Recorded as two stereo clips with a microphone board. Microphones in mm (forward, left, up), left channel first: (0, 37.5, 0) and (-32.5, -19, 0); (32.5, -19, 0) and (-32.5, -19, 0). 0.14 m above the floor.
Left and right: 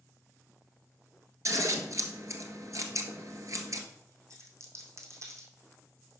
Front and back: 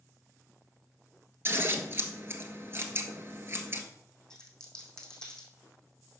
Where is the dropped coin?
80° right, 2 m.